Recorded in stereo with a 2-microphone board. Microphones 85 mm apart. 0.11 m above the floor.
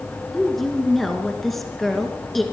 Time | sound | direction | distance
0.3 | a woman speaking | centre (ahead or behind) | 1.6 m